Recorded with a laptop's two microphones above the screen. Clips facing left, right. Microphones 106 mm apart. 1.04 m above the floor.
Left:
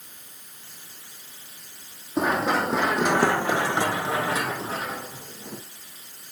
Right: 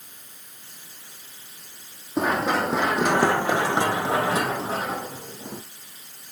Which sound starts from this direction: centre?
Running footsteps, at 2.2 s.